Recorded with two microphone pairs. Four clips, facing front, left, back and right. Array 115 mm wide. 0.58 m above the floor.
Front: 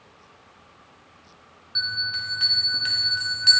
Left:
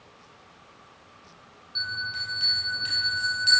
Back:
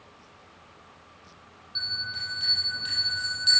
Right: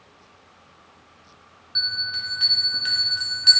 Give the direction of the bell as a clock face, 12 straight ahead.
1 o'clock.